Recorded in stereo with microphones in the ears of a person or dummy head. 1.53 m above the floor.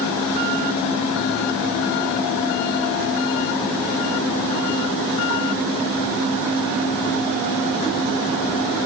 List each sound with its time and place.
Only background noise.